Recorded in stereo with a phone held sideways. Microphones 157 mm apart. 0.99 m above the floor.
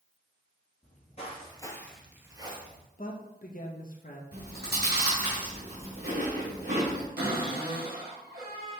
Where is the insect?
No insect in this recording.